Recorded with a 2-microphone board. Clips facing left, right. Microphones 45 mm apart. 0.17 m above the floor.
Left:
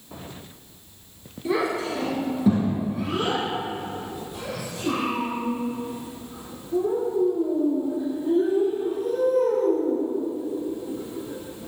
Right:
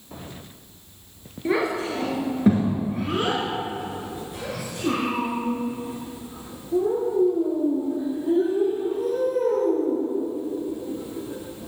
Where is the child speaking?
35° right (ahead or behind), 2.5 m.